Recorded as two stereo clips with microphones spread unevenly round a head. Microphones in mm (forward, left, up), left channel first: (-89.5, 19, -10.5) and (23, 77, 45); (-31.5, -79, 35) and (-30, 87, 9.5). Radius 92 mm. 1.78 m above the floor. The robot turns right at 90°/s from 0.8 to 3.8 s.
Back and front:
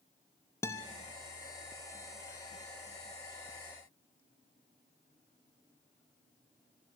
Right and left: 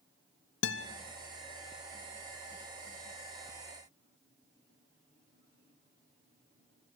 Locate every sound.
0.6 s a guitar: 70° right, 1.0 m; by 0.9 s 65° right, 1.0 m